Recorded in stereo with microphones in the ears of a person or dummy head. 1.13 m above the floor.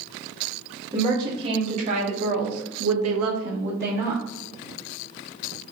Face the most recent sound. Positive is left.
turn(degrees=-35)  # may be behind; listen again after turning